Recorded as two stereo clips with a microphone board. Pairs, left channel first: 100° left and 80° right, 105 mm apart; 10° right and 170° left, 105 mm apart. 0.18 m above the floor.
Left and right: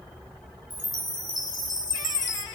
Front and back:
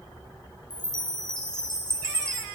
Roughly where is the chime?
Left.